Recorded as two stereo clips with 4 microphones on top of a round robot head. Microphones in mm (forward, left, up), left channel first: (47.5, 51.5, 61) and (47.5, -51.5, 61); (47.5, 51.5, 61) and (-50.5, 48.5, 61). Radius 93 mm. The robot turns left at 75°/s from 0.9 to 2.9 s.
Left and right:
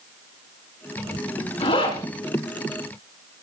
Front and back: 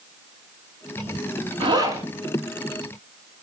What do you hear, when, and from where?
1.6 s a zipper: 150° left, 6.5 m; by 2.0 s 120° left, 6.5 m